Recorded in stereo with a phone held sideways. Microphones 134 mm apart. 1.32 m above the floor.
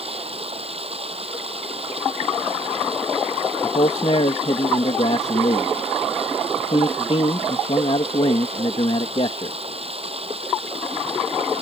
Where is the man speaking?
50° left (ahead or behind).